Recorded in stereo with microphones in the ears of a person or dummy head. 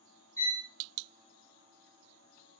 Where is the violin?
15° left (ahead or behind), 2.5 m.